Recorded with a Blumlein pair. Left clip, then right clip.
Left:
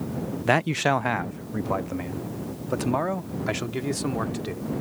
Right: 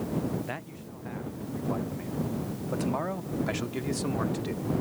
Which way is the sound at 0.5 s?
35° left.